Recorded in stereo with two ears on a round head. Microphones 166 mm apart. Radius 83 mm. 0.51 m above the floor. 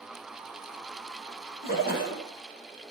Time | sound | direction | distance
1.6 | a splash | 55° left (ahead or behind) | 7 m